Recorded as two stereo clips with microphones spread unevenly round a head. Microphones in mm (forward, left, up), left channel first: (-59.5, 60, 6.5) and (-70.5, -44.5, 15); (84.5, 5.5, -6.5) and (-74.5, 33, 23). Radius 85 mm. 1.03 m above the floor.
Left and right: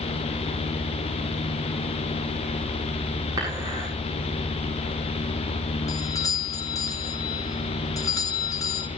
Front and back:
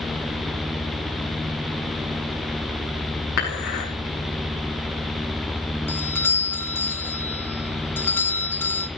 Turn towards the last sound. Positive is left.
turn(degrees=50)